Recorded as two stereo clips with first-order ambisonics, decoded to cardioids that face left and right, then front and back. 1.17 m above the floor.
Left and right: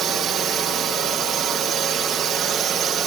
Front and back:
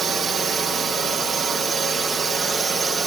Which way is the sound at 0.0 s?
125° right.